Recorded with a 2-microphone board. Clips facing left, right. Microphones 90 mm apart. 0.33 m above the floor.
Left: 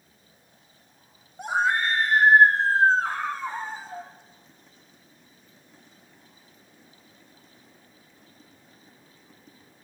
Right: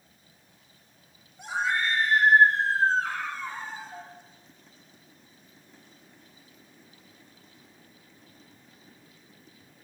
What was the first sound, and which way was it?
A scream, 50° left (ahead or behind).